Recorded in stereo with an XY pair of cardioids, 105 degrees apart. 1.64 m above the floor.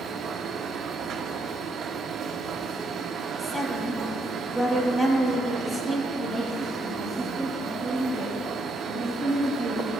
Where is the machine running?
60° right, 0.8 m.